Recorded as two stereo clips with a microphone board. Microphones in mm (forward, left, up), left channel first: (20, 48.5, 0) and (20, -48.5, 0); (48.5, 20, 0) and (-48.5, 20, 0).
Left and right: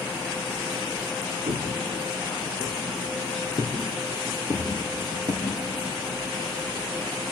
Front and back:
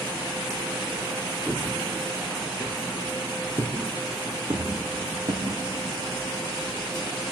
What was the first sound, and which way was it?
Footsteps, 100° right.